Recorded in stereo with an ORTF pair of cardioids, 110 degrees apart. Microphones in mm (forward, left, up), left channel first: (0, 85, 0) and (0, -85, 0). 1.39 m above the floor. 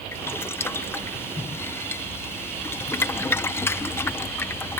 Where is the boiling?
15° left.